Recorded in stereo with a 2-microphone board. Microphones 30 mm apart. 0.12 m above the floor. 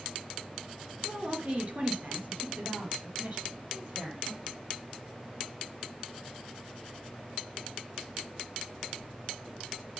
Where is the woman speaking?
30° right (ahead or behind), 2 m; by 4.4 s 60° right (ahead or behind), 5.5 m.